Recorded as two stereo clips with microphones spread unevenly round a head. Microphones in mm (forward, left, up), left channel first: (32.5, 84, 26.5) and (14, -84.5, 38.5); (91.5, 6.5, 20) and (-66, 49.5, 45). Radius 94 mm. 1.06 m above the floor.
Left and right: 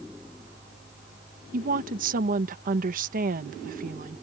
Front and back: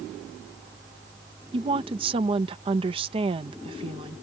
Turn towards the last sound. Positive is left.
turn(degrees=-135)